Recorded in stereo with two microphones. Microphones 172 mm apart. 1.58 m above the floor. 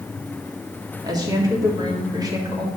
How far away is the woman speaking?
About 3.5 m.